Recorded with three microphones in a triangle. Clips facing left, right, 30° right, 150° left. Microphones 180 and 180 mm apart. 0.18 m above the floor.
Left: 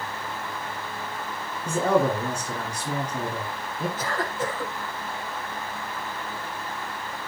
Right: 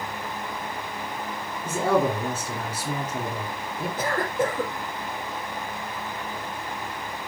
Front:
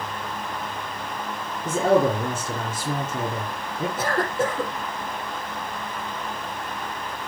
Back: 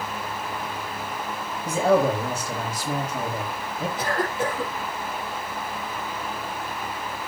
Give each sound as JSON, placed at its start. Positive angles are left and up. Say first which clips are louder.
{"t": 1.6, "sound": "a man speaking", "louder": "left 1 dB, front 1 dB", "azimuth_deg": -10, "distance_m": 2.0}
{"t": 4.0, "sound": "a cough", "louder": "right 4 dB, front 2 dB", "azimuth_deg": -70, "distance_m": 5.0}